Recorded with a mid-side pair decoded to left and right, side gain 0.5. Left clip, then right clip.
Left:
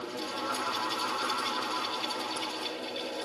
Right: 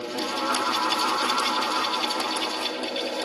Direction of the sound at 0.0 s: 55° right.